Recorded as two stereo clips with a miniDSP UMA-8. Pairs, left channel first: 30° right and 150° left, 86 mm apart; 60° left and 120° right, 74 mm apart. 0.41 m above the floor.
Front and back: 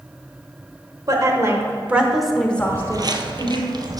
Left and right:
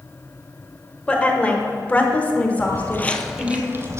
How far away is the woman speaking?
About 1.3 m.